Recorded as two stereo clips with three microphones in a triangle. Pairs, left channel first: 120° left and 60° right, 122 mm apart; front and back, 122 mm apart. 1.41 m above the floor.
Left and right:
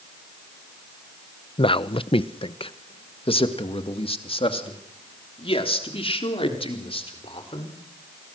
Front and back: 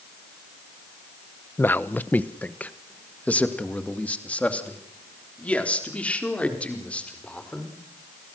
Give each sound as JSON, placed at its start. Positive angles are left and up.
{"t": 1.6, "sound": "a man speaking", "azimuth_deg": 75, "distance_m": 0.7}